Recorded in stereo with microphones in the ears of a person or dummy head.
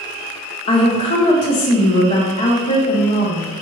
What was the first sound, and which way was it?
A woman speaking, 25° left (ahead or behind).